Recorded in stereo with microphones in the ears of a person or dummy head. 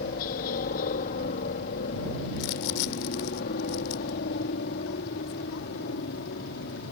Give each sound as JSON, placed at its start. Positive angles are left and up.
{"t": 0.0, "sound": "a helicopter", "side_deg": 45}
{"t": 2.4, "sound": "crumpling", "side_deg": 85}